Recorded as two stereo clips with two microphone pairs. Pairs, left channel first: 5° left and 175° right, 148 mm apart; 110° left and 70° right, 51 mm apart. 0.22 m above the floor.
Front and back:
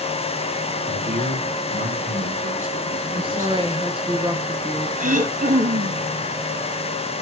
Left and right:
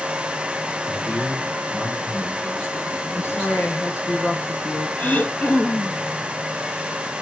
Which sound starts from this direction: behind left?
A woman speaking, at 3.1 s.